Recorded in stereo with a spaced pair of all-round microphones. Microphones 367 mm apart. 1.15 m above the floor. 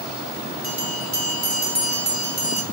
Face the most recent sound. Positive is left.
turn(degrees=-50)  # may be behind; listen again after turning